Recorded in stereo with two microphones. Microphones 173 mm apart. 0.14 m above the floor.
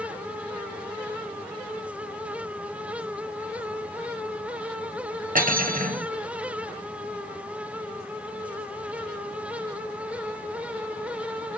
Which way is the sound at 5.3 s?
50° right (ahead or behind).